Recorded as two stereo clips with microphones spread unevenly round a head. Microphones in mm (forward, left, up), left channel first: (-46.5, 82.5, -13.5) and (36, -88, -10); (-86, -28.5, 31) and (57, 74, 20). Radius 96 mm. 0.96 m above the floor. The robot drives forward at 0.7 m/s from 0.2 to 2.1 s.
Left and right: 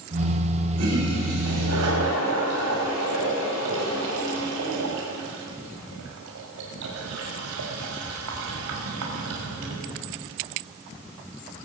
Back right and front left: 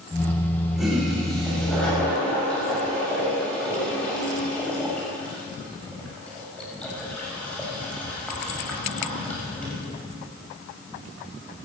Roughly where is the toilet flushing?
Ahead right.